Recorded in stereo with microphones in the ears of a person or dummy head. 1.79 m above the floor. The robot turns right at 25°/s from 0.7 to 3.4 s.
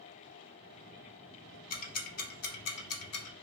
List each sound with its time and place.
1.7 s ticking: 40° left (ahead or behind), 1.1 m; by 3.3 s 80° left, 1.1 m